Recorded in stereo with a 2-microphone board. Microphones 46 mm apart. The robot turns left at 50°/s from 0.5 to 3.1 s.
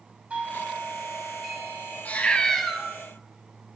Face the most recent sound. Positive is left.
turn(degrees=-15)